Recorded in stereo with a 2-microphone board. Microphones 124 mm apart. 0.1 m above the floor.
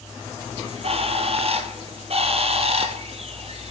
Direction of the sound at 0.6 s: 55° right (ahead or behind).